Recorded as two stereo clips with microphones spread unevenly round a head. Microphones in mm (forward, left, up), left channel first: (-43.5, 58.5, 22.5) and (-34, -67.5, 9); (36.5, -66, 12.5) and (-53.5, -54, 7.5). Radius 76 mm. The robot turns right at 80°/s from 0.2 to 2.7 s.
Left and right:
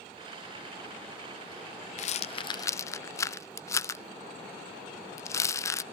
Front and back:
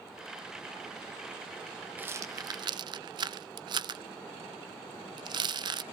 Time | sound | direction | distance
2.0 | a rattle | 105° left | 0.5 m